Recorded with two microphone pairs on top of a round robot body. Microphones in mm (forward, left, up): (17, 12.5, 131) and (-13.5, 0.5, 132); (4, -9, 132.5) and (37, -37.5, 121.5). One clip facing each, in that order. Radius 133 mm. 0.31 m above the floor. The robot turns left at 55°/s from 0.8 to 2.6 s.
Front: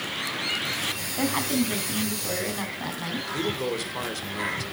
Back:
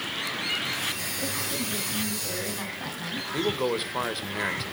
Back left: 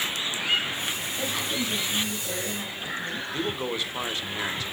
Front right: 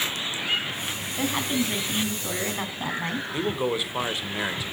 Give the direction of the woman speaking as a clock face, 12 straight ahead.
11 o'clock.